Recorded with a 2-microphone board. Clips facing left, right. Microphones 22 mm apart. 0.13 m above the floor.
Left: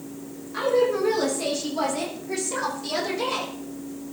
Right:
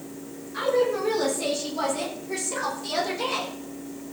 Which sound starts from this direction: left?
A woman speaking, at 0.5 s.